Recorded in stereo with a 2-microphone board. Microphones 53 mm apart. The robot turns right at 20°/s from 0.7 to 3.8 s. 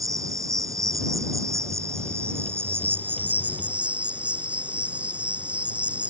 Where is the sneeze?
I don't hear a sneeze.